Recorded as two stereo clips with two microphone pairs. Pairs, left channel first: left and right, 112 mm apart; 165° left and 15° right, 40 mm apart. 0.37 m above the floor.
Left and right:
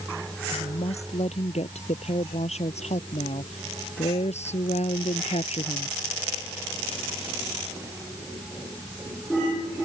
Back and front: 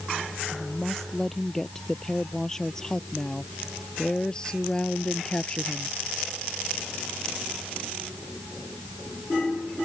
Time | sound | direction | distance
0.5 | a woman speaking | 80° left | ?